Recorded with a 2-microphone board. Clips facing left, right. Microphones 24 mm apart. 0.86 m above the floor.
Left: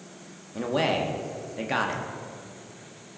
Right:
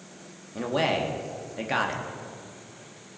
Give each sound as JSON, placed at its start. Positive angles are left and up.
{"t": 0.6, "sound": "a man speaking", "side_deg": 0, "distance_m": 1.2}